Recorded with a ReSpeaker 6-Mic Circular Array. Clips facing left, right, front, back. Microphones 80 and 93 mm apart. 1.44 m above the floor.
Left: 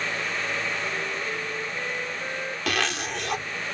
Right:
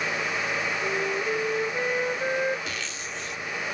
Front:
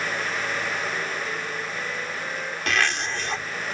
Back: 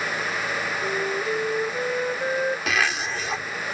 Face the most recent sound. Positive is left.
turn(degrees=95)